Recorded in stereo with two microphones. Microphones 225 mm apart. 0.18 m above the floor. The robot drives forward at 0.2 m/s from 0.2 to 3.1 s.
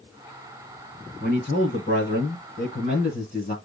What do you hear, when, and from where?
1.2 s a man speaking: 45° left (ahead or behind), 1.9 m; by 3.5 s 40° left (ahead or behind), 2 m